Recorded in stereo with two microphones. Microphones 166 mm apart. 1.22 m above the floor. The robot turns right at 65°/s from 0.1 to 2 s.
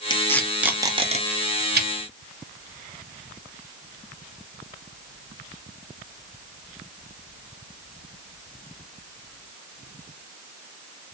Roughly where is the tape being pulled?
Left.